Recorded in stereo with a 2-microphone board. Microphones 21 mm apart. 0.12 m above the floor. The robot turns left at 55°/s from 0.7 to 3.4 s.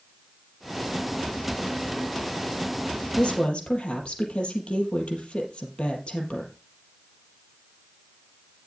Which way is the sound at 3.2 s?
65° left (ahead or behind).